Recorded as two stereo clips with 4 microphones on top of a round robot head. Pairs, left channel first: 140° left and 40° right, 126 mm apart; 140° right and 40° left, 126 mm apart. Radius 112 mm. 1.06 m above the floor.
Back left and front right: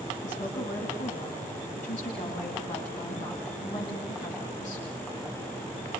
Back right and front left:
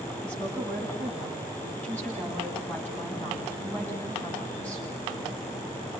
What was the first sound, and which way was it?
A woman speaking, 140° left.